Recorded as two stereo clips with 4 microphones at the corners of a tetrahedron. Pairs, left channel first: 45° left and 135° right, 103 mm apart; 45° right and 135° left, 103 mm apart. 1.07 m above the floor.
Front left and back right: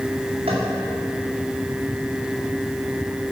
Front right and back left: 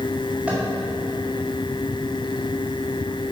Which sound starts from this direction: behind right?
Tapping, at 0.5 s.